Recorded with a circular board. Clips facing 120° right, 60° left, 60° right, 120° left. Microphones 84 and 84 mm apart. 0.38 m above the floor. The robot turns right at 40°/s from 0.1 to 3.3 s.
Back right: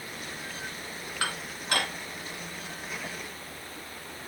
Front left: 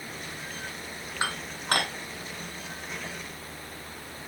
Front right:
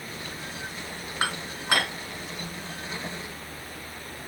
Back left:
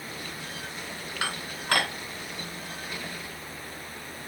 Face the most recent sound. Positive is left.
turn(degrees=80)